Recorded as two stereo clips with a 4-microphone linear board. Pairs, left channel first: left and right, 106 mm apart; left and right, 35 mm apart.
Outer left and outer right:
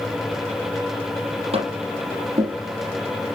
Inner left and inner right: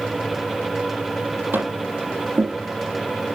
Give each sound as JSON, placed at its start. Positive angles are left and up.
{"t": 1.5, "sound": "tapping", "side_deg": -70, "distance_m": 6.0}